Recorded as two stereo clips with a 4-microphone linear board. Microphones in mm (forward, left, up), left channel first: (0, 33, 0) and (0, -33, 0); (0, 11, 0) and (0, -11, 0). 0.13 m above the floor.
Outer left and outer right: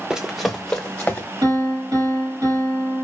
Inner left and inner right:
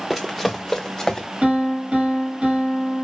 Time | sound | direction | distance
0.1 | running footsteps | 15° right (ahead or behind) | 0.6 m
1.4 | a piano | 70° right (ahead or behind) | 2 m